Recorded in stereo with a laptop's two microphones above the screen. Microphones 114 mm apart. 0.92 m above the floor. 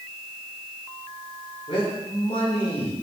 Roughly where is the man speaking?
Left.